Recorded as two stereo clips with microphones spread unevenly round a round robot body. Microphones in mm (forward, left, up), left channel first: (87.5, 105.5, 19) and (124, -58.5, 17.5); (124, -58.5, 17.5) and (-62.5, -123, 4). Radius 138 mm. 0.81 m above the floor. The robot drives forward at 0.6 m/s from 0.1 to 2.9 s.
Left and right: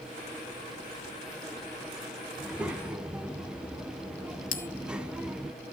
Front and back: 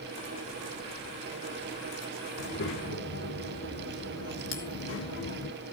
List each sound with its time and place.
2.4 s a child speaking: 5° left, 1.6 m; by 5.5 s 10° left, 1.3 m
4.5 s a bell: 70° left, 1.6 m